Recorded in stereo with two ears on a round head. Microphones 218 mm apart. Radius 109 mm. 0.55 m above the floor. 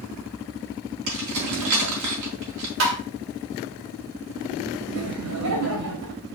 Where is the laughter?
70° right (ahead or behind), 3.5 m.